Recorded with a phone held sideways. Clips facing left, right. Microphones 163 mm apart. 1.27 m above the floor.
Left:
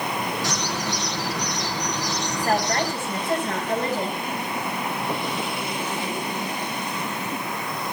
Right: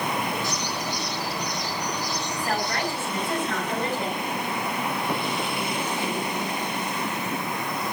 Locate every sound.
0.4 s a bird: 80° left, 6.5 m
2.4 s a woman speaking: 35° left (ahead or behind), 7.5 m